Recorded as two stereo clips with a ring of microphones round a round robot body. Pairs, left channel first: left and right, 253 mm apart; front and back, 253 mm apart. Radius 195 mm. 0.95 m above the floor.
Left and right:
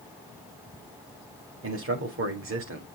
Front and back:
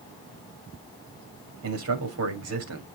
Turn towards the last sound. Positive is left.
turn(degrees=-140)